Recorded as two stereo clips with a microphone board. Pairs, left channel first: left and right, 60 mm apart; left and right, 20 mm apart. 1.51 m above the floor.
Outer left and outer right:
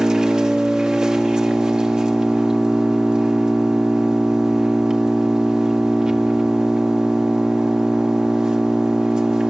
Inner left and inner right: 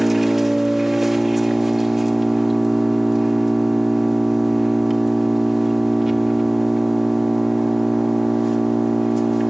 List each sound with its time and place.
0.0 s an engine running: 15° right (ahead or behind), 1.5 m